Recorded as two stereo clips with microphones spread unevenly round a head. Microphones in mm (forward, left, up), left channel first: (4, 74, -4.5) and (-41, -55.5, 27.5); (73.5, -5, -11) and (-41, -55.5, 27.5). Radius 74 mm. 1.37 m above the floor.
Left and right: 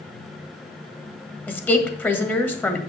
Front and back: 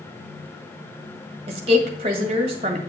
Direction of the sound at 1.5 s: 150° left.